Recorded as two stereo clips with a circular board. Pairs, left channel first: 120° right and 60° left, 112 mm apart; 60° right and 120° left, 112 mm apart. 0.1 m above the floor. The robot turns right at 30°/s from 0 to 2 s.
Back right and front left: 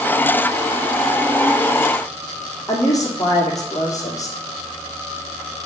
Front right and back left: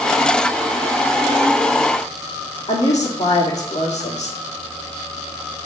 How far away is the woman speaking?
About 4 m.